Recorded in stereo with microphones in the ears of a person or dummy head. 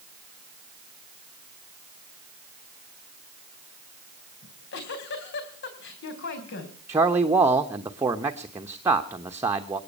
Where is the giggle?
65° left (ahead or behind), 3.5 m.